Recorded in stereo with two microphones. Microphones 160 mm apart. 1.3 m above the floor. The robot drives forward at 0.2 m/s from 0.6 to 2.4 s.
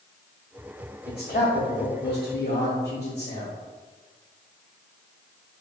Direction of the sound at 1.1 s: 70° left (ahead or behind).